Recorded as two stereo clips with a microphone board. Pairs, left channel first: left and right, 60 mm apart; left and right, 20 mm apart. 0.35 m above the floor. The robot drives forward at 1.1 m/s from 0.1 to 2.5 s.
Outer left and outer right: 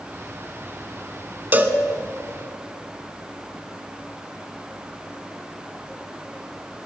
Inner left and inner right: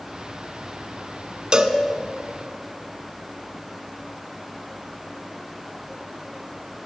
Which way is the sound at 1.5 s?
35° right (ahead or behind).